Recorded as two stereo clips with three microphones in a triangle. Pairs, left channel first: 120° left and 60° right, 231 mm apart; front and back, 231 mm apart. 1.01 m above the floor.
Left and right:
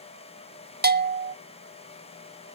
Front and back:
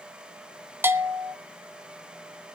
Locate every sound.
0.8 s a bell: 100° right, 0.8 m